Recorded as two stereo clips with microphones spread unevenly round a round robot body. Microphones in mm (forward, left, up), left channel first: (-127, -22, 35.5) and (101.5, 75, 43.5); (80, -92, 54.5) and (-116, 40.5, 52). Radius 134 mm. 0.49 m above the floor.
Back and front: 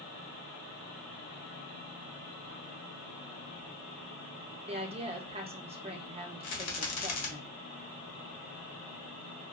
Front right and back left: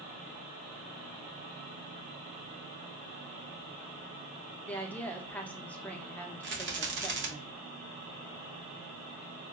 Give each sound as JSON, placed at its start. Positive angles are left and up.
{"t": 4.7, "sound": "a woman speaking", "azimuth_deg": 40, "distance_m": 0.8}
{"t": 6.4, "sound": "a rattle", "azimuth_deg": -170, "distance_m": 1.3}